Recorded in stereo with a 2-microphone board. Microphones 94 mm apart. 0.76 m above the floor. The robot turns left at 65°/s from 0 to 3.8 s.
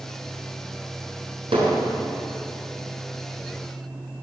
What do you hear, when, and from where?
1.5 s hammering: 80° right, 7 m; by 1.8 s 65° right (ahead or behind), 7 m